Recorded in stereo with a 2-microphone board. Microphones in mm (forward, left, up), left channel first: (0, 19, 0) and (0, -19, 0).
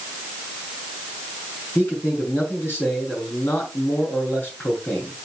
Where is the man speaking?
70° left (ahead or behind), 4 m.